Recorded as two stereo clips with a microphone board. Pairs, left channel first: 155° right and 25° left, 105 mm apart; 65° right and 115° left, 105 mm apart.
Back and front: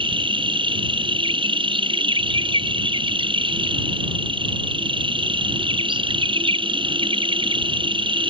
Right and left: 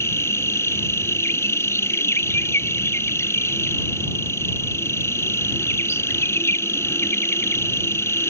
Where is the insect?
5° right.